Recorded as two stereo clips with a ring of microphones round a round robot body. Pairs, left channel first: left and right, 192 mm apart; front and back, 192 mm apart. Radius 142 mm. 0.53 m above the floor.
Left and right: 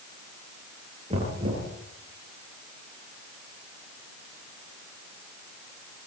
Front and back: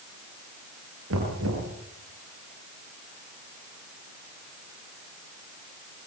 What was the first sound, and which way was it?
Knocking, 160° right.